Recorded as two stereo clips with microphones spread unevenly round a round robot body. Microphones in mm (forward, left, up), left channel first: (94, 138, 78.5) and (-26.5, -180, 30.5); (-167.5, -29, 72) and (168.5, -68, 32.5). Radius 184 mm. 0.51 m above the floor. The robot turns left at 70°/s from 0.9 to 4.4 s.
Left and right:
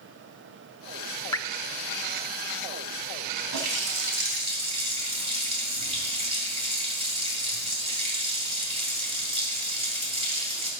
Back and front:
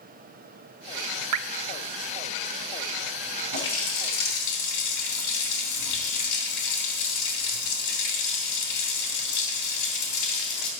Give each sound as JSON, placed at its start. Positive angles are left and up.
{"t": 1.3, "sound": "dripping", "azimuth_deg": -15, "distance_m": 0.5}
{"t": 3.5, "sound": "a running tap", "azimuth_deg": -125, "distance_m": 3.0}